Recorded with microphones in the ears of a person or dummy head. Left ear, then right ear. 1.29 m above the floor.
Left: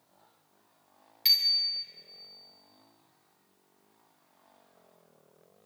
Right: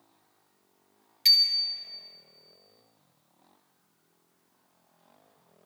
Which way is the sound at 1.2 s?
Centre (ahead or behind).